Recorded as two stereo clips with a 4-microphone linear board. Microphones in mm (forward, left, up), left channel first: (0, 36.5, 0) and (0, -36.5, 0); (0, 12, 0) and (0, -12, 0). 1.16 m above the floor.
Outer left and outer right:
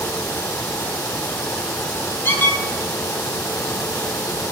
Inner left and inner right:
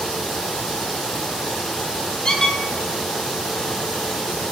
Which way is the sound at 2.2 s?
30° left (ahead or behind).